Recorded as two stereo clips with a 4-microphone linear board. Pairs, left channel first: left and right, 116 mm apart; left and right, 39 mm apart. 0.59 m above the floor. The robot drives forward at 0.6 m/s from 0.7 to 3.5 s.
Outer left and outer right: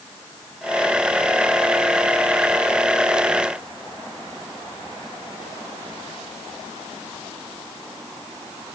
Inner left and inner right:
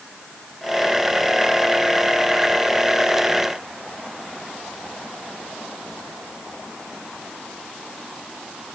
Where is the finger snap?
I don't hear a finger snap.